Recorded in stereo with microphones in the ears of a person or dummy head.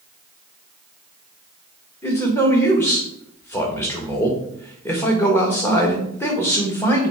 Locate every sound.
2.0 s a man speaking: 10° left (ahead or behind), 1.6 m